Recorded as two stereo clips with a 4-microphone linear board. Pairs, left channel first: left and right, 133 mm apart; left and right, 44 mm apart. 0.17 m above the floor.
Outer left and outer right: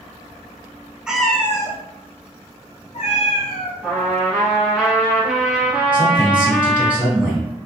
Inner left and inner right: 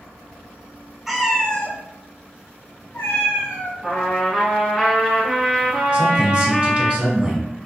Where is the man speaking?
15° right (ahead or behind), 1.3 m.